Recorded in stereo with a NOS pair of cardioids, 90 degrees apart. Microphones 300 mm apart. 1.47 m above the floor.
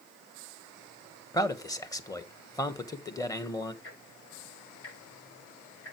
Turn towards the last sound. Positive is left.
turn(degrees=45)